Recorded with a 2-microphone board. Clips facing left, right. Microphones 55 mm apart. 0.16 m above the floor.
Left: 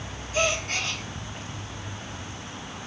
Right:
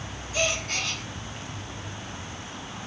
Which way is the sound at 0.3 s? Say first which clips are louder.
Left 2 dB; 45° left (ahead or behind).